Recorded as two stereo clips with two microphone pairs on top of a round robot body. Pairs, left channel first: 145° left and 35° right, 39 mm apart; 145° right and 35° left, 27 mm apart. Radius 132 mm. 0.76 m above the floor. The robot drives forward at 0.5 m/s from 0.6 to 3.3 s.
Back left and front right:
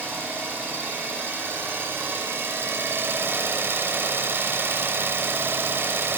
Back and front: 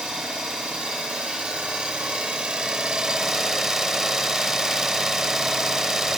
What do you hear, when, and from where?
0.0 s an engine running: 10° right, 1.8 m; by 6.2 s 35° right, 0.6 m